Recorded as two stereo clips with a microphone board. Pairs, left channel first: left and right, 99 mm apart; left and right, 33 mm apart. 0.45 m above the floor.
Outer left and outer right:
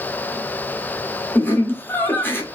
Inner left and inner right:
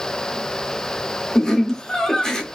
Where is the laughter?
20° left (ahead or behind), 0.9 m.